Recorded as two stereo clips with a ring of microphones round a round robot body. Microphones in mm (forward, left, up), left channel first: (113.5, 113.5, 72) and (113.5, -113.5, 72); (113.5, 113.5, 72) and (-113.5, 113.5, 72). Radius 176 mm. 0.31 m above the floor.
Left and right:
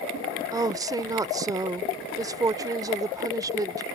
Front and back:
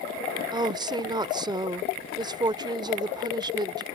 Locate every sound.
0.5 s a woman speaking: 140° right